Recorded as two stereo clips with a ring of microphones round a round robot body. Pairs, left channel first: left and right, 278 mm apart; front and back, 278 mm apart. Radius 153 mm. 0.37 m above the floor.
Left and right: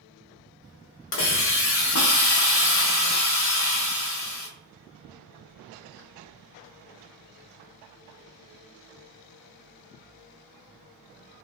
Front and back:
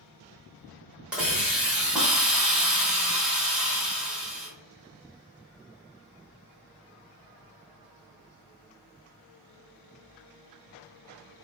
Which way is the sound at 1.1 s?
95° left.